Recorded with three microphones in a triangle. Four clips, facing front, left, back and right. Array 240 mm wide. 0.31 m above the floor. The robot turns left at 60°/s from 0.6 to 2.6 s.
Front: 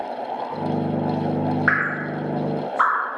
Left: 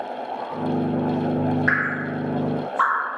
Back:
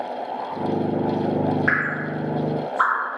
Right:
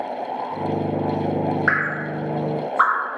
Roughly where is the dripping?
Ahead.